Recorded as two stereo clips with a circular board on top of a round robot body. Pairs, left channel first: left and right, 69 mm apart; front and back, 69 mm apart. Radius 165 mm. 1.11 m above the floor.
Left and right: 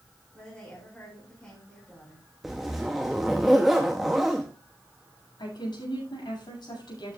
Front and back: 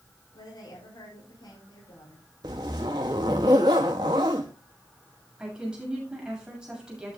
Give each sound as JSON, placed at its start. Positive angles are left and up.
{"t": 0.3, "sound": "a woman speaking", "azimuth_deg": 10, "distance_m": 6.0}
{"t": 2.4, "sound": "a zipper", "azimuth_deg": -175, "distance_m": 0.5}
{"t": 5.4, "sound": "a woman speaking", "azimuth_deg": 100, "distance_m": 7.5}